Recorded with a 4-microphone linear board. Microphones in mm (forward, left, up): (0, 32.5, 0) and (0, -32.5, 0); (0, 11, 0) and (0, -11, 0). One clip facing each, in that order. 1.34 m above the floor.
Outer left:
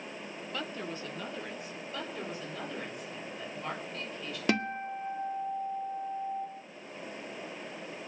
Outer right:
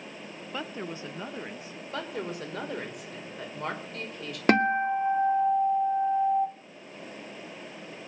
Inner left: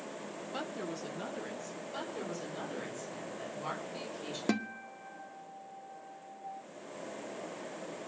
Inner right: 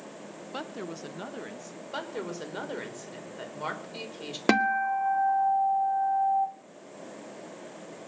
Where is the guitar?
45° right (ahead or behind), 0.7 m.